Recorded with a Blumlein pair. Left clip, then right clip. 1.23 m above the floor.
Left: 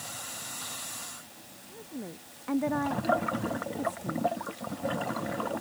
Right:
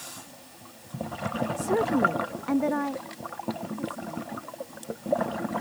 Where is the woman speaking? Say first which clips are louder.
Right 20 dB; 50° right; by 4.3 s 20° left.